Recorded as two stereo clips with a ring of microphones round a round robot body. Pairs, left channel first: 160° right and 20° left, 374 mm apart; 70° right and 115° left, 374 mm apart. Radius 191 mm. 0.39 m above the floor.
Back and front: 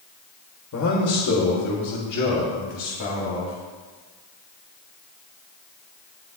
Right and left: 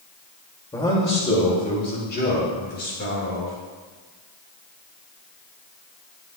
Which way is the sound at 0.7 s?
145° right.